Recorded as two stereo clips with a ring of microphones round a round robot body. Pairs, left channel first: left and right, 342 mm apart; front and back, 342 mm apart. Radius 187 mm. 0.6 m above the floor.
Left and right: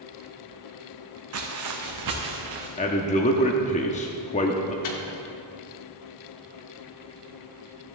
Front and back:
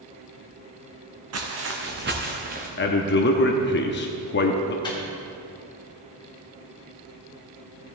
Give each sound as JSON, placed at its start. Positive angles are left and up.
{"t": 1.3, "sound": "footsteps", "azimuth_deg": -135, "distance_m": 1.9}
{"t": 2.8, "sound": "a man speaking", "azimuth_deg": 35, "distance_m": 0.7}
{"t": 4.8, "sound": "a microwave", "azimuth_deg": 75, "distance_m": 1.5}